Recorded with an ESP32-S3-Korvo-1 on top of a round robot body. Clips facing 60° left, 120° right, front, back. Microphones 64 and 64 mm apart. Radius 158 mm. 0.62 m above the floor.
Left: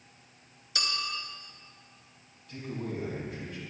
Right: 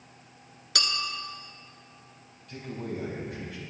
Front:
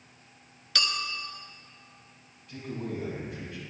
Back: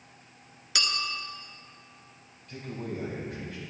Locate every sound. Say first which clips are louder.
0.8 s a clink: right 3 dB, even; 100° right, 1.2 m
2.5 s a man speaking: right 1 dB, front 1 dB; 145° right, 4.5 m